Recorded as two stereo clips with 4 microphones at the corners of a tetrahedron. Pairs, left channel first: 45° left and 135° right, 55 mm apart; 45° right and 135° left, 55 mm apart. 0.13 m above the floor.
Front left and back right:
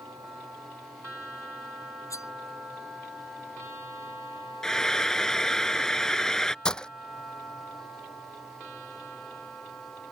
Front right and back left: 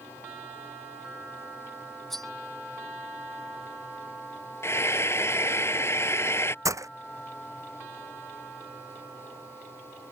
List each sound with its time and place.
2.1 s cutlery clinking: 40° left
4.6 s frying: 35° right
6.7 s breaking glass: 120° left